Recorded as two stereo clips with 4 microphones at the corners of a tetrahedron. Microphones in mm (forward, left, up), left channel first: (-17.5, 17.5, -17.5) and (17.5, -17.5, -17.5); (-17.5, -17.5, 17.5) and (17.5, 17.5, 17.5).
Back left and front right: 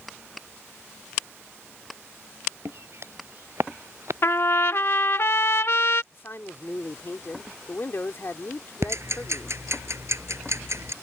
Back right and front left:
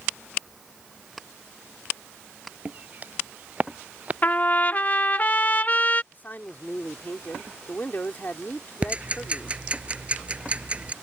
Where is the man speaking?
175° left.